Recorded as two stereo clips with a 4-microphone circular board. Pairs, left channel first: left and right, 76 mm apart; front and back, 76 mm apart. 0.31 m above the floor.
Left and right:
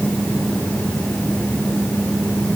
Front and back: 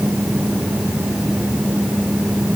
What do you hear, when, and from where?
Only background noise.